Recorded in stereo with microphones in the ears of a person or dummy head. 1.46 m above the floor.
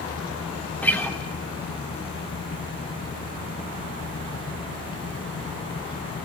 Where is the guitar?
Centre (ahead or behind), 1.1 m.